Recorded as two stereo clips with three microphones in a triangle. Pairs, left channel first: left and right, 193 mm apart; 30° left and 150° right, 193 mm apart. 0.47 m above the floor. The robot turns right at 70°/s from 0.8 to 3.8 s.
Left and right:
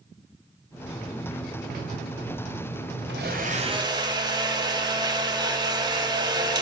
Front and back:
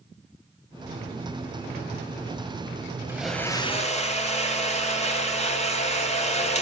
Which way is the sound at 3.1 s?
75° right.